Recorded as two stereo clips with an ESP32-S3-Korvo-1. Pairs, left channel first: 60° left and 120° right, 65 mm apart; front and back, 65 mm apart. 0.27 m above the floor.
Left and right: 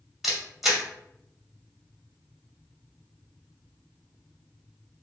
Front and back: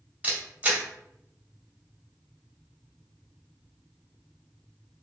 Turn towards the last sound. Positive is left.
turn(degrees=165)